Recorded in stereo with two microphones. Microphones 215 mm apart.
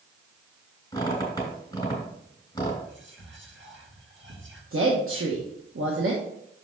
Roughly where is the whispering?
Right.